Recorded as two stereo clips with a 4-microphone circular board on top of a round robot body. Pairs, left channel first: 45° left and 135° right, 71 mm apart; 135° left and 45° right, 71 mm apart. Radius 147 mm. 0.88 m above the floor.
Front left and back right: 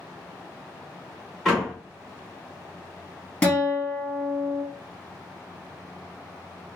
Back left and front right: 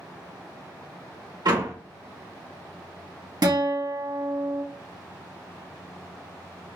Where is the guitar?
30° right, 2.0 m.